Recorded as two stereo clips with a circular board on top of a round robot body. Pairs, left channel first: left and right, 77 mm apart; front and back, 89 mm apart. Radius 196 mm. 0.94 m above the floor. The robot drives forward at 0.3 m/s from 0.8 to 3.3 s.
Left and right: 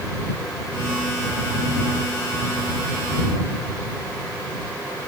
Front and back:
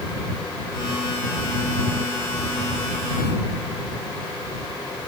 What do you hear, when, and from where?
Only background noise.